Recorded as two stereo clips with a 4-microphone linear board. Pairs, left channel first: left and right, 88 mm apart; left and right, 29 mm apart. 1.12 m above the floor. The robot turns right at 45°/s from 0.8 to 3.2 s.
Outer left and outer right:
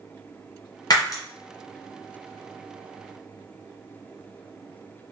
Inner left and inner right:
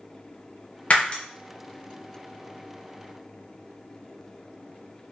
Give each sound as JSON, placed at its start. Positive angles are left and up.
{"t": 0.9, "sound": "breaking glass", "side_deg": 45, "distance_m": 0.6}